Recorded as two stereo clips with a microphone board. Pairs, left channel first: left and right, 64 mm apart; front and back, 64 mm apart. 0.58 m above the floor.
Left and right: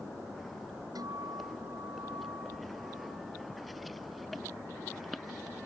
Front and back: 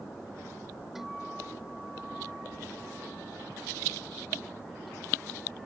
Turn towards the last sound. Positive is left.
turn(degrees=-95)